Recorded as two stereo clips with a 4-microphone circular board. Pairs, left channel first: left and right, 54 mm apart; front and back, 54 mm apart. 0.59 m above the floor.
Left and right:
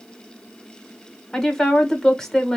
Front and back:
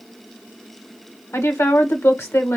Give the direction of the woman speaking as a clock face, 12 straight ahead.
12 o'clock.